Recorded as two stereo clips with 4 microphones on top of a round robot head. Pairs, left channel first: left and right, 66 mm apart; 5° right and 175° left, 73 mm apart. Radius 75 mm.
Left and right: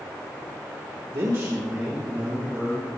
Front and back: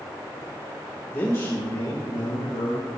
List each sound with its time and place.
1.1 s a man speaking: 60° right, 1.4 m; by 2.9 s 5° right, 3 m